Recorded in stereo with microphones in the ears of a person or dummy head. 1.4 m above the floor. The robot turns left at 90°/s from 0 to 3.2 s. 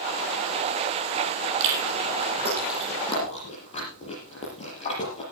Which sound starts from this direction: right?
Chewing, at 1.6 s.